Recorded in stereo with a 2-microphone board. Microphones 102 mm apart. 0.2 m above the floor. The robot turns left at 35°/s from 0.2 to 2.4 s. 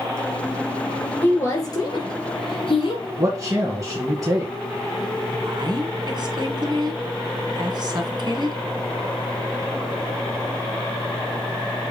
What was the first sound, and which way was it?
A woman speaking, 155° left.